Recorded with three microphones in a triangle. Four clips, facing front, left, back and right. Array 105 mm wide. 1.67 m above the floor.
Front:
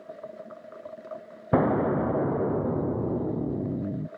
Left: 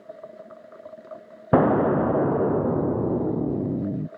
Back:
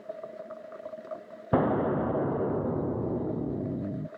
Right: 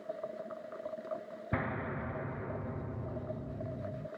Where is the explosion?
80° left.